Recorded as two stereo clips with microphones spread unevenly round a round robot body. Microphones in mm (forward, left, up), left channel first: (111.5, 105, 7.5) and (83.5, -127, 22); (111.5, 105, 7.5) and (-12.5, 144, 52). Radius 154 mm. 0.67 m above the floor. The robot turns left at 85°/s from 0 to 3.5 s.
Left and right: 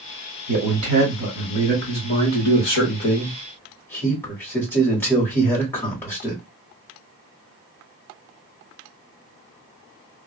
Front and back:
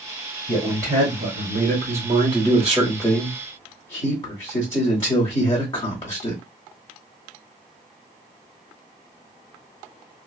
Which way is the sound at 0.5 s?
95° right.